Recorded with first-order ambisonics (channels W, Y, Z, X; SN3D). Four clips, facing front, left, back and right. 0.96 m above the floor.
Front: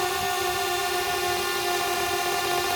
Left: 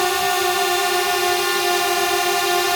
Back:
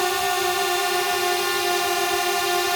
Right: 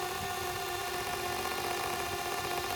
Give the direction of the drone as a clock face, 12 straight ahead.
8 o'clock.